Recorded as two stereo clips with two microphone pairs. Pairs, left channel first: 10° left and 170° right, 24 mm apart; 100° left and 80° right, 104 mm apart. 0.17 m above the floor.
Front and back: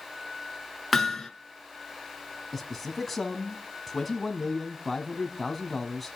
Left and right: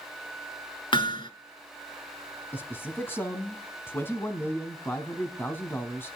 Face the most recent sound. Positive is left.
turn(degrees=80)